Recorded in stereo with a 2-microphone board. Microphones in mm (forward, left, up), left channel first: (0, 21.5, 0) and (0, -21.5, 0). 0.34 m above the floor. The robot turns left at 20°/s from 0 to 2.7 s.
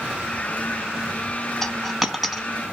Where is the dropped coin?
5° left (ahead or behind), 0.7 m; by 2.5 s 10° right (ahead or behind), 0.7 m.